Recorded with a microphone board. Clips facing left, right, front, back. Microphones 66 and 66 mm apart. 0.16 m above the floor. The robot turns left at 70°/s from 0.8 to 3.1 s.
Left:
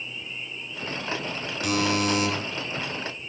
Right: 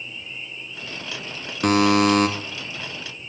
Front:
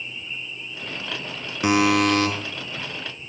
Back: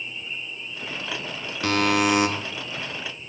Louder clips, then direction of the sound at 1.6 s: Right 8 dB, front 3 dB; 65° right.